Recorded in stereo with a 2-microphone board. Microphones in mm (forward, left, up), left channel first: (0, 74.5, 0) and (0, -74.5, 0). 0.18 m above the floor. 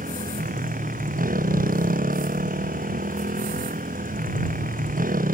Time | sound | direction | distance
0.0 | a motorcycle | 85° right | ?